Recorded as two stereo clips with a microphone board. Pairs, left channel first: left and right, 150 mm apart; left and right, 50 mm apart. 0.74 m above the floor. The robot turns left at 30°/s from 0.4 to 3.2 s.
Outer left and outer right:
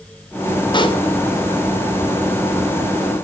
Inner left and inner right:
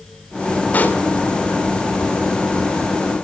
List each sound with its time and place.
0.7 s a pop: 35° left (ahead or behind), 3 m; by 1.0 s 40° left (ahead or behind), 3 m